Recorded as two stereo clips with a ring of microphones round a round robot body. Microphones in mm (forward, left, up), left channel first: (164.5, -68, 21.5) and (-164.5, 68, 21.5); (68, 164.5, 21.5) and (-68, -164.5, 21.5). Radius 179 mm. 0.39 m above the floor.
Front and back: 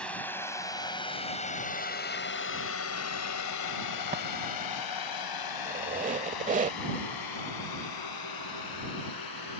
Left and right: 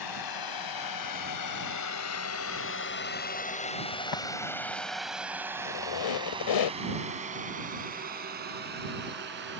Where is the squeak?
90° left.